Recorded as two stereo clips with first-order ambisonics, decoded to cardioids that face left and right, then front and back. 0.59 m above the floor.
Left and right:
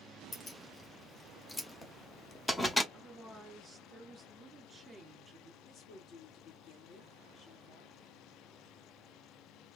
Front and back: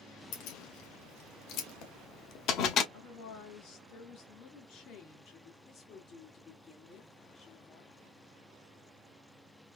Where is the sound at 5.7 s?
60° left, 1.5 m.